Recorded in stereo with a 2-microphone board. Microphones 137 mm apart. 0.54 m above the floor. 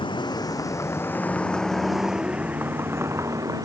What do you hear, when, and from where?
0.0 s a vehicle: 35° left (ahead or behind); by 3.7 s 25° right (ahead or behind)